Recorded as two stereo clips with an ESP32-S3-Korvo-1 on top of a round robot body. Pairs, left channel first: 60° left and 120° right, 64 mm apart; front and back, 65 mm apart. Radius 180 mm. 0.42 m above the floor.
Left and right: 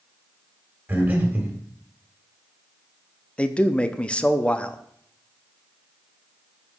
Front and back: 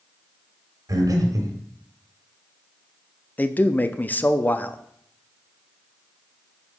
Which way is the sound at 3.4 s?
10° left.